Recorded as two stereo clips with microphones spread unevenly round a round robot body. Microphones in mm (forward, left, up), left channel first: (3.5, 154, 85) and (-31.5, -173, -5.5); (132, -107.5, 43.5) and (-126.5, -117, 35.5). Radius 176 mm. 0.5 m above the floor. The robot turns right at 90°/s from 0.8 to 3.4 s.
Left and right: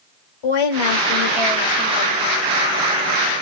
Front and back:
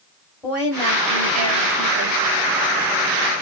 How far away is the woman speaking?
About 2.5 m.